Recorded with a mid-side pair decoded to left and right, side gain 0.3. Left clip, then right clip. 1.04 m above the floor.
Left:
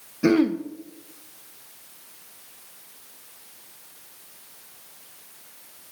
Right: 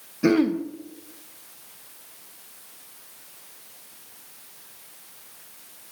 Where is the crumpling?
I don't hear crumpling.